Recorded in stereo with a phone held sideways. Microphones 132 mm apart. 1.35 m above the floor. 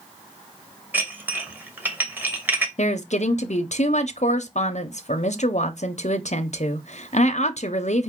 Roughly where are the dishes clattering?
Centre.